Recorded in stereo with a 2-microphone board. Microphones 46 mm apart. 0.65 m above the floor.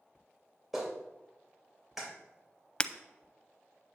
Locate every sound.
0.7 s a clap: 5° right (ahead or behind), 2.5 m
2.8 s breaking glass: 20° left (ahead or behind), 0.5 m